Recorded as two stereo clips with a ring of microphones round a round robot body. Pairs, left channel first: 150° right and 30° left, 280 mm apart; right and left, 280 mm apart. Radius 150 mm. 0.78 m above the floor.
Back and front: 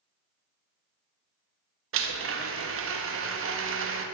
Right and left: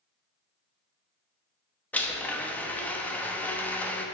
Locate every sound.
1.9 s a blender: 5° right, 0.9 m